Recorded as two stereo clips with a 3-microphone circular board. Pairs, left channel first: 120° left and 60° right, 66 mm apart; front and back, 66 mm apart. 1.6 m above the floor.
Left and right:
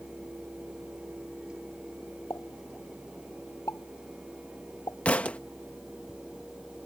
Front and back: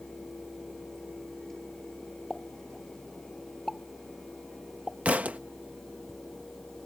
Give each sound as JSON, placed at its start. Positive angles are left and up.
{"t": 2.3, "sound": "a pop", "azimuth_deg": 80}
{"t": 5.0, "sound": "a thud", "azimuth_deg": 155}